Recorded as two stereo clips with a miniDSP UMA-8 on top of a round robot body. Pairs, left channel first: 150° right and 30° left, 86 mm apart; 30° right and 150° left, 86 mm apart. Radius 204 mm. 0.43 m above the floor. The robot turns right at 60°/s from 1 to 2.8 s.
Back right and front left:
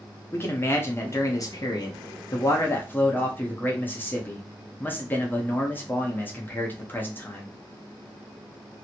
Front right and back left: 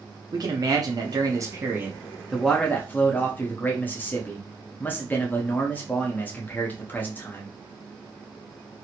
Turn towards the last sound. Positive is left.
turn(degrees=-90)